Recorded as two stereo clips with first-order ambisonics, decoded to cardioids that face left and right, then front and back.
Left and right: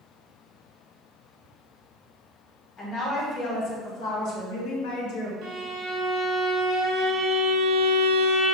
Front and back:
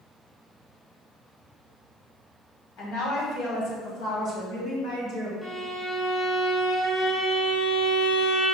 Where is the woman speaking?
40° left, 1.9 m; by 5.3 s 80° left, 2 m.